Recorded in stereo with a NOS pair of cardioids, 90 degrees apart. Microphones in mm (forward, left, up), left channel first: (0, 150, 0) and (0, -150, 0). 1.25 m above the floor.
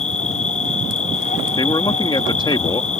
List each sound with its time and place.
0.0 s an insect: 25° left
1.6 s a man speaking: 15° left